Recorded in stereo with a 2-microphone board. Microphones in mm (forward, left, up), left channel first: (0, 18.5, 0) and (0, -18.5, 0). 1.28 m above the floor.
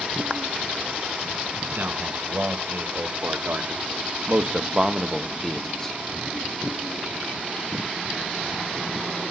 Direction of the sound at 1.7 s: 65° right (ahead or behind).